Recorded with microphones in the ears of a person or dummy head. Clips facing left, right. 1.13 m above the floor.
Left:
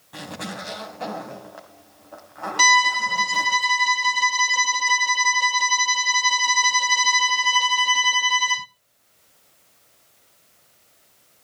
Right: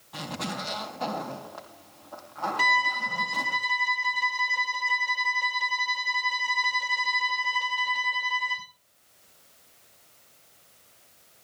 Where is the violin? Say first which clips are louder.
Left 7 dB; 50° left (ahead or behind), 0.6 m.